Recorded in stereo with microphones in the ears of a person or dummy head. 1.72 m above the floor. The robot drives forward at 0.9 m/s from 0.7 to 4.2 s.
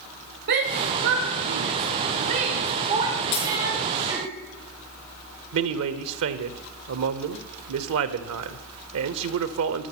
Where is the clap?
I don't hear a clap.